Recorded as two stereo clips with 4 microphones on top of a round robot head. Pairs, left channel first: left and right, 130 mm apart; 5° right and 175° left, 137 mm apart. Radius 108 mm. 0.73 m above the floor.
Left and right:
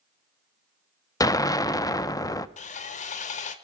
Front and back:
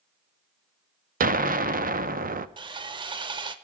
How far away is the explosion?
About 0.6 m.